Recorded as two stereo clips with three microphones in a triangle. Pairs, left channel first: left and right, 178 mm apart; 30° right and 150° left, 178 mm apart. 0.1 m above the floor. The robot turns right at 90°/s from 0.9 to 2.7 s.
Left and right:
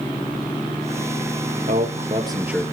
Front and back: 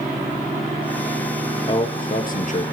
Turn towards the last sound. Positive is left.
turn(degrees=10)